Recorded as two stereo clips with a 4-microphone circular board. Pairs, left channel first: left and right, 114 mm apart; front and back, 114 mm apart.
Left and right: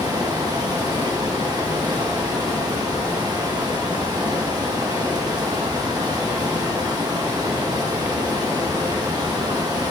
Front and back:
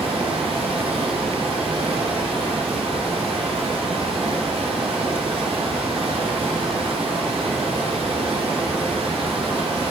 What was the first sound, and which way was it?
Running water, 145° right.